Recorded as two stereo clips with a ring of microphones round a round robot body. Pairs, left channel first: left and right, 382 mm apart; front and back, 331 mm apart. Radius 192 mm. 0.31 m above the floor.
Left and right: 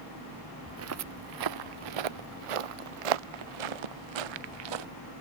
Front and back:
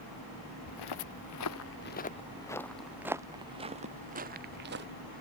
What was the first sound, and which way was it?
Footsteps, 30° right.